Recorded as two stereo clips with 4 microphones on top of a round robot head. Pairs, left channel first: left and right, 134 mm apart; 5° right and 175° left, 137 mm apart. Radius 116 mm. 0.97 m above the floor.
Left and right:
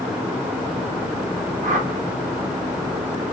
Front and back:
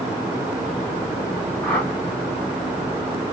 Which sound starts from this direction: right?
A whoosh, at 1.6 s.